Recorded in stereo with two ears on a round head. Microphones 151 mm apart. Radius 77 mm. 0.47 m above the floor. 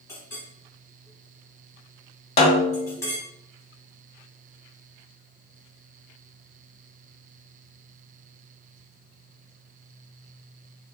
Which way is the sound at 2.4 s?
40° left (ahead or behind).